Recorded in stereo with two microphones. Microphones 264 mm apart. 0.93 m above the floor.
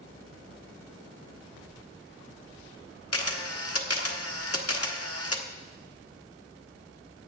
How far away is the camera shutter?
About 1.2 m.